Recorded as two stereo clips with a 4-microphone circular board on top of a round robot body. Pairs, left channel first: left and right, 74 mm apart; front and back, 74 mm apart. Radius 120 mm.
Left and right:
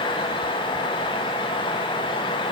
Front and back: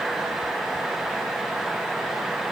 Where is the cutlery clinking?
I don't hear cutlery clinking.